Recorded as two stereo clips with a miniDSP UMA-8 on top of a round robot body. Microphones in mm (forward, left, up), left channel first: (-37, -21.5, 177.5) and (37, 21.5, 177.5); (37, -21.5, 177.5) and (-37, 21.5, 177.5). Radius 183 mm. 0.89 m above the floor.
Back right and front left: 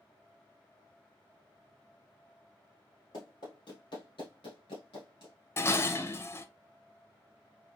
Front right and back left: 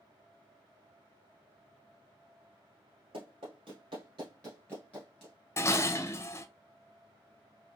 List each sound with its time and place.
3.1 s running footsteps: 165° left, 1.4 m; by 5.3 s 110° right, 1.0 m
5.6 s dishes clattering: 90° right, 0.5 m